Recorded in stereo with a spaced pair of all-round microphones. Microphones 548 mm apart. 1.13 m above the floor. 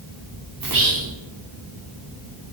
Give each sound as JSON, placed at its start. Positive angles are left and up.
{"t": 0.6, "sound": "whispering", "side_deg": -40, "distance_m": 0.6}